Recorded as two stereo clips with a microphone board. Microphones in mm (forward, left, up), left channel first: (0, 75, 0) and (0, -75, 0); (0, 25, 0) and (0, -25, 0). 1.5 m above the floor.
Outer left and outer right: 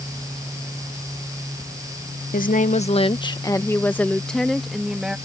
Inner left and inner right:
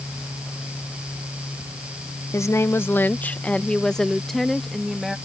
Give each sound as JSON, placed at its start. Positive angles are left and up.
{"t": 2.3, "sound": "a woman speaking", "side_deg": 70}